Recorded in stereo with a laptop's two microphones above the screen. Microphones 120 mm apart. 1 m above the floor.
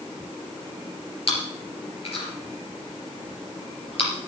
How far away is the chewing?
About 3.5 m.